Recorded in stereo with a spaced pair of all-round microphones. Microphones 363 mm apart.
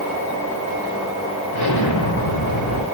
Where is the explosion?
85° left, 2 m.